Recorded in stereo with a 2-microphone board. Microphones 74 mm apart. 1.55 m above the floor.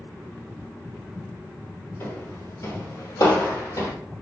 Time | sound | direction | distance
2.0 | footsteps | 35° left (ahead or behind) | 2 m